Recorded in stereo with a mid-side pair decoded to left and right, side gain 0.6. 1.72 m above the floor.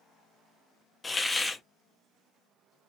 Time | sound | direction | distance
1.0 | a hiss | 10° left | 0.7 m